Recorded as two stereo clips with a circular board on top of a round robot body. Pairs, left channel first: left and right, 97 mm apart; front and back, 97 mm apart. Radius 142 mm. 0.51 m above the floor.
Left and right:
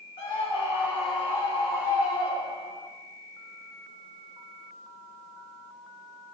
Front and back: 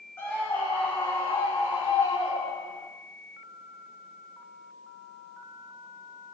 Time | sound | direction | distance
0.2 | a scream | 70° left | 4 m